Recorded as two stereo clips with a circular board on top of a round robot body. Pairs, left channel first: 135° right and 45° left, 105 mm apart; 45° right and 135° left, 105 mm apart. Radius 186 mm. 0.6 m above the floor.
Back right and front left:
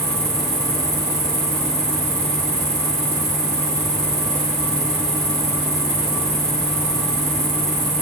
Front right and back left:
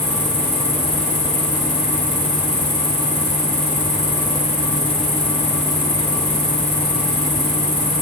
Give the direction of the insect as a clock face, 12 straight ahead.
11 o'clock.